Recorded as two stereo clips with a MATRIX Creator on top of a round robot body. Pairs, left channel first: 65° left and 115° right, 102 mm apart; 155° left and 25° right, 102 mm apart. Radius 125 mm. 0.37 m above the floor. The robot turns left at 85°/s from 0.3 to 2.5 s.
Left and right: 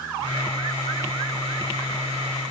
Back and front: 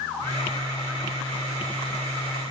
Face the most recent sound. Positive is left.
No sound to turn to.